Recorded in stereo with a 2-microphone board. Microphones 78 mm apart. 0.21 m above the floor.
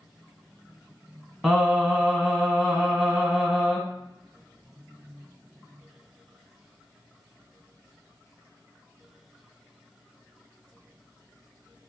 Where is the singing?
5° right (ahead or behind), 0.9 m.